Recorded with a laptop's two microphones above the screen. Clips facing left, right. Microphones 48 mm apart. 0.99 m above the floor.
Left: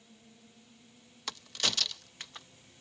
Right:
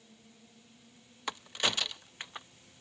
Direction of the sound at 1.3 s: 20° right (ahead or behind).